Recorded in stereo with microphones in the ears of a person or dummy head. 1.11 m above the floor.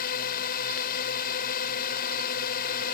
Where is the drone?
50° left (ahead or behind).